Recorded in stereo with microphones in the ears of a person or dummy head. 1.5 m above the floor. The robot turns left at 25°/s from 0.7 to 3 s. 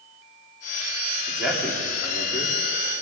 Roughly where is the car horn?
I don't hear a car horn.